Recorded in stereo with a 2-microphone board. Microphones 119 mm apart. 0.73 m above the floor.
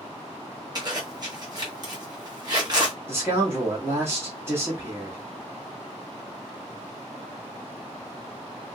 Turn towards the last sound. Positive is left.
turn(degrees=-20)  # may be behind; listen again after turning